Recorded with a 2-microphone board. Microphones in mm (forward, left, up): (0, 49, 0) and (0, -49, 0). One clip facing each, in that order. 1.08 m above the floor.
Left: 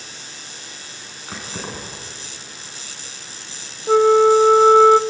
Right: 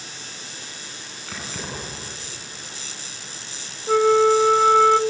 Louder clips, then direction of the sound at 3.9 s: Left 4 dB; 20° left (ahead or behind).